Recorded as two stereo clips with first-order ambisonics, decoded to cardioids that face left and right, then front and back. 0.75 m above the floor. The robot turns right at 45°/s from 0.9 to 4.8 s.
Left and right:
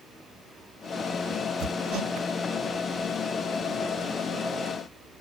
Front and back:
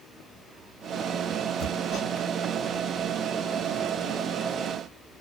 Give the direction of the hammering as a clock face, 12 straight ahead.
3 o'clock.